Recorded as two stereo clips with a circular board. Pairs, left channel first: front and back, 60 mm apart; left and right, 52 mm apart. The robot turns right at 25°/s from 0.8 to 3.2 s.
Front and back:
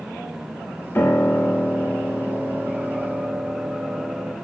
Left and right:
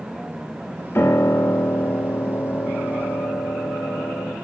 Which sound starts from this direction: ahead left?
A piano, at 0.9 s.